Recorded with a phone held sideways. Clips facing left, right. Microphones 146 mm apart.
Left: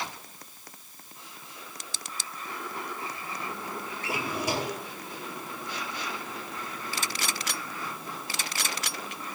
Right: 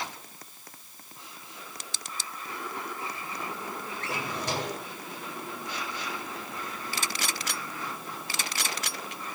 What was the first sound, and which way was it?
A drawer, 10° left (ahead or behind).